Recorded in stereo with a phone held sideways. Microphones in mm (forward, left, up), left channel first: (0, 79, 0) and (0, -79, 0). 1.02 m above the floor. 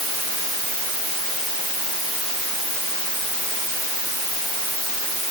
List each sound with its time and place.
Only background noise.